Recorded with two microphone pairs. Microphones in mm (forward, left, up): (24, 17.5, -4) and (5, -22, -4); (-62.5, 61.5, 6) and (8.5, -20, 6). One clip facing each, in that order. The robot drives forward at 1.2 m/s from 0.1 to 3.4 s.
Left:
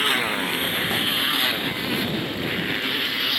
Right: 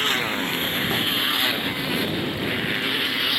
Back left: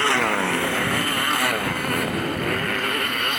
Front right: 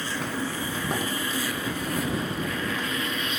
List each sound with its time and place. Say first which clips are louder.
0.0 s a motorcycle: left 1 dB, back left 9 dB; 145° left; by 3.4 s 160° left